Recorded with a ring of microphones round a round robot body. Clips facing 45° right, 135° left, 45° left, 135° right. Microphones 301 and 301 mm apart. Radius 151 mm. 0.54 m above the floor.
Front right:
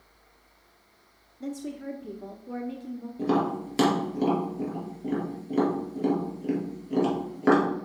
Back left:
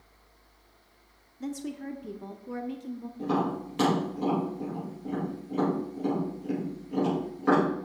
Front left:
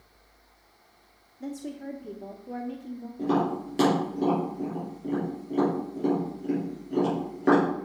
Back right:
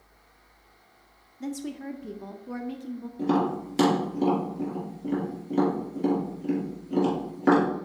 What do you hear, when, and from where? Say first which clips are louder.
1.4 s a woman speaking: even, back right 2 dB; 165° right, 0.6 m
3.2 s tapping: front right 3 dB, back right 1 dB; 65° right, 4.5 m